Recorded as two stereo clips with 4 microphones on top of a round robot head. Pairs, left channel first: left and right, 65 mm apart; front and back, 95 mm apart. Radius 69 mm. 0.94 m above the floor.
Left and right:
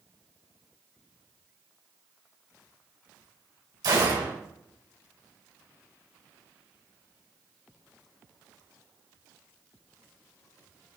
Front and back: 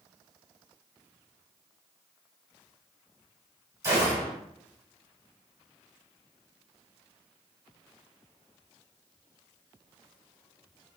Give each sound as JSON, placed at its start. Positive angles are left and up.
{"t": 3.8, "sound": "a gunshot", "azimuth_deg": -120, "distance_m": 3.0}